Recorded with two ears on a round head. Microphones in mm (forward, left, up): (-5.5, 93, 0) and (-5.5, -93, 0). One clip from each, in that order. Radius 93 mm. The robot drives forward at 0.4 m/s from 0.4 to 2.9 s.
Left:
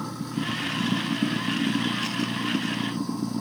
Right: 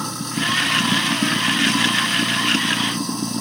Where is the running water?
55° right (ahead or behind); by 3.4 s 60° right (ahead or behind).